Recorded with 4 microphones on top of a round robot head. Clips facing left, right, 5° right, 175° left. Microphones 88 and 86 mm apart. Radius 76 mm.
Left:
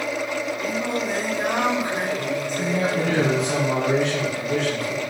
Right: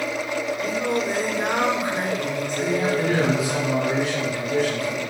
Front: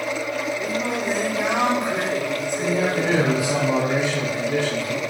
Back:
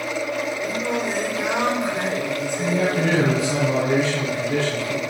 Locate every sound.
0.6 s singing: 30° left, 5.5 m
2.6 s a man speaking: 70° left, 6 m